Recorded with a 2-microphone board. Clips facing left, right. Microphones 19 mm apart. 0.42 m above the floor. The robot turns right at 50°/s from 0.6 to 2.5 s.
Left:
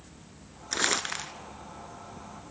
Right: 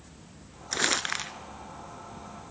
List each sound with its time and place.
0.7 s crumpling: centre (ahead or behind), 1.3 m; by 1.3 s 30° right (ahead or behind), 1.3 m